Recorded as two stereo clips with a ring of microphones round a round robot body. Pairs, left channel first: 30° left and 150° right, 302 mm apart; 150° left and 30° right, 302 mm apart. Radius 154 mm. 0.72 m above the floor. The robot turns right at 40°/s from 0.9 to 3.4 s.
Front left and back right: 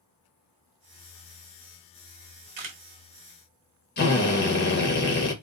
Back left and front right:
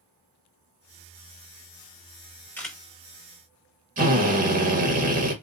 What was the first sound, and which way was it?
A camera shutter, 125° right.